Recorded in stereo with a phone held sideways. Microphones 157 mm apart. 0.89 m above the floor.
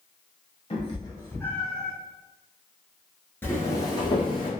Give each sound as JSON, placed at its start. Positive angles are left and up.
{"t": 0.7, "sound": "a cat meowing", "side_deg": 40, "distance_m": 0.8}
{"t": 3.4, "sound": "footsteps", "side_deg": 15, "distance_m": 0.8}